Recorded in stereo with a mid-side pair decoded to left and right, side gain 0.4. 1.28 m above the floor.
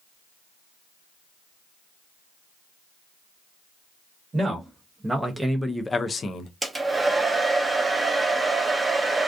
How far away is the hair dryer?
About 0.9 m.